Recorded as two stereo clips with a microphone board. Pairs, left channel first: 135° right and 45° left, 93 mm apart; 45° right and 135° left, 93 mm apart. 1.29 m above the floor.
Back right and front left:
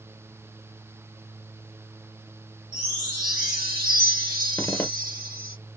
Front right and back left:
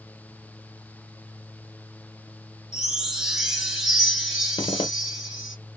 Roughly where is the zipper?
Right.